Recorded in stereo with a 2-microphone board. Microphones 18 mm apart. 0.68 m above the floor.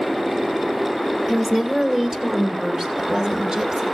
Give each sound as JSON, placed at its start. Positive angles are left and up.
{"t": 1.3, "sound": "a woman speaking", "side_deg": -30, "distance_m": 2.0}